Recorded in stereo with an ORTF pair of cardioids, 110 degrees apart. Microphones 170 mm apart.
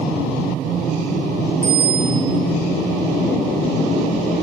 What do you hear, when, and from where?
1.6 s a bicycle bell: 10° right, 7.5 m